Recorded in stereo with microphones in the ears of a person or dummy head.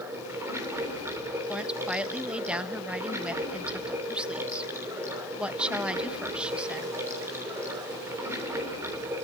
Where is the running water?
15° right (ahead or behind), 3 m.